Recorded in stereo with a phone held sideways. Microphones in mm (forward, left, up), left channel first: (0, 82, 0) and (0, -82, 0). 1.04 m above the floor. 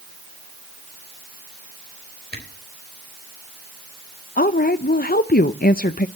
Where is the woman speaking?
65° left (ahead or behind), 0.5 m.